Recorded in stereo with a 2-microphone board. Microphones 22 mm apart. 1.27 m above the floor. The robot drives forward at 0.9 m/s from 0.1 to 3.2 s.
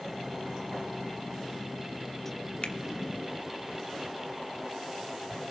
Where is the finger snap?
60° left (ahead or behind), 1.1 m; by 2.8 s 55° left (ahead or behind), 1.2 m.